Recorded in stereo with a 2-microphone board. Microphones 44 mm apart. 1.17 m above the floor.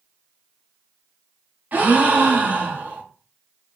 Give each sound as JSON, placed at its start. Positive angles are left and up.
{"t": 1.7, "sound": "a gasp", "side_deg": -45, "distance_m": 1.1}